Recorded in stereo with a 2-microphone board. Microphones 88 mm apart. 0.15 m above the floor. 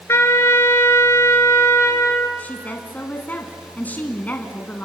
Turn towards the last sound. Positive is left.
turn(degrees=20)  # may be behind; listen again after turning